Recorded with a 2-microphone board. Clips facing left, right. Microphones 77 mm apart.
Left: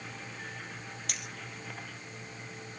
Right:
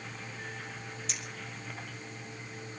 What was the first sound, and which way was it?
A clink, 60° left (ahead or behind).